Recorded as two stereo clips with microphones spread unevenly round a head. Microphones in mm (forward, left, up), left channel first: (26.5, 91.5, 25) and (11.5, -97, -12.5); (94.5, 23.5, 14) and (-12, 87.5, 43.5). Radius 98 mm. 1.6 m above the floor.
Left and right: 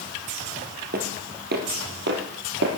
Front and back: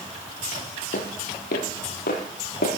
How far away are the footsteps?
About 2.5 m.